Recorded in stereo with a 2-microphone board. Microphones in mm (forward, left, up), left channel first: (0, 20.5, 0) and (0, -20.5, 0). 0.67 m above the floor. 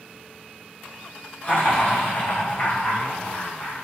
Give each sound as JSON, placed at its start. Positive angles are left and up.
{"t": 1.4, "sound": "laughter", "side_deg": 55, "distance_m": 2.5}